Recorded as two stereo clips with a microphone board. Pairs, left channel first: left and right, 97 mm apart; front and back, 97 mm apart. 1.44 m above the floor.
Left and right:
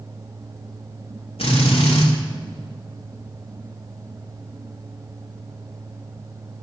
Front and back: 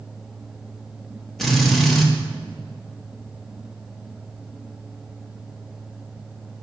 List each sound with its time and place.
1.4 s a drill: 90° left, 2.5 m